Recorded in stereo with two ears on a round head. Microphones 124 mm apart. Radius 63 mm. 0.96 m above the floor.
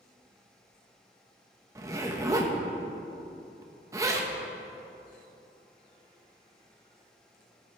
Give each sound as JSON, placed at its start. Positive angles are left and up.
{"t": 1.8, "sound": "a zipper", "side_deg": -25, "distance_m": 1.4}